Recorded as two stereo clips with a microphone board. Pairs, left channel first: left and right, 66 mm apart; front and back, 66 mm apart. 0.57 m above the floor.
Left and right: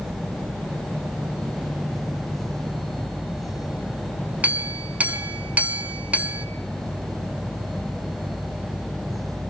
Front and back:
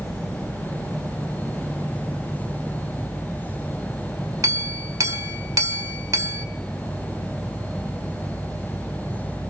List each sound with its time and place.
4.4 s a clink: 155° right, 1.4 m